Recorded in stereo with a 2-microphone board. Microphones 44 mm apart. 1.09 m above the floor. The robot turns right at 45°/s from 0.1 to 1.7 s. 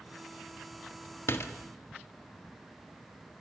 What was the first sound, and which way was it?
A door slam, 70° left (ahead or behind).